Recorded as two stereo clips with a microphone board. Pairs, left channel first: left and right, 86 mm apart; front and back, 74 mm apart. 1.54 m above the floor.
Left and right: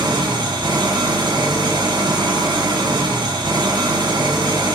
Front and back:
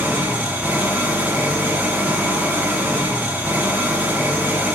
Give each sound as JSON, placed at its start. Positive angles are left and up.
{"t": 0.0, "sound": "an engine running", "azimuth_deg": -115, "distance_m": 0.9}